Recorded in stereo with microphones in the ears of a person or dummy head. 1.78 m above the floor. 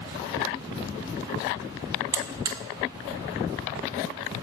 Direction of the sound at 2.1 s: 25° right (ahead or behind).